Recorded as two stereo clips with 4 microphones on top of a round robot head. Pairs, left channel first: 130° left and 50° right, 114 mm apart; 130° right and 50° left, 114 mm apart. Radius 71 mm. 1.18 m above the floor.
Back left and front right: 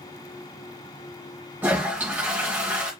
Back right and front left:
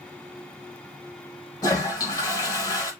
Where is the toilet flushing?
110° right, 1.0 m.